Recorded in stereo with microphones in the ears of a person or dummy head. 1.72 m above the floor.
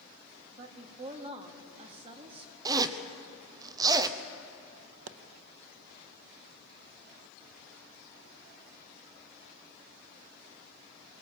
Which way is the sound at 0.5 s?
35° right (ahead or behind).